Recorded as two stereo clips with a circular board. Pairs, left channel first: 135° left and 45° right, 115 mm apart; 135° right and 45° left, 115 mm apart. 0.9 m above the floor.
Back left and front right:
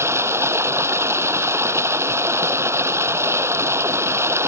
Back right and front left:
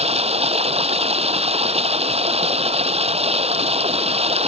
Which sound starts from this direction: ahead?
Running water, at 0.0 s.